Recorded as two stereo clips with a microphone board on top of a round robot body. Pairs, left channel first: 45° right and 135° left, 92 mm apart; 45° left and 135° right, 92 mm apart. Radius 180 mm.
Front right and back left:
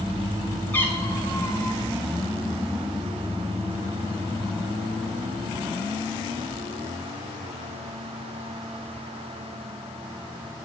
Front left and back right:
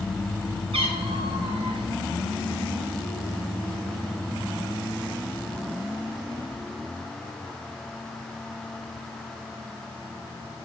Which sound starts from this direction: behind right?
A cat meowing, at 0.7 s.